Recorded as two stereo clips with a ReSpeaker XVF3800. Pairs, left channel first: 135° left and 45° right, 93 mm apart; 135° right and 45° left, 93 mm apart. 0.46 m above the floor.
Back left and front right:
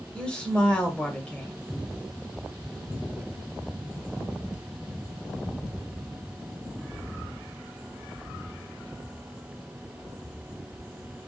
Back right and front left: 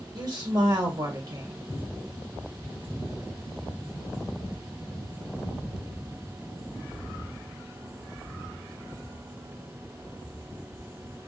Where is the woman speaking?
60° left, 1.0 m.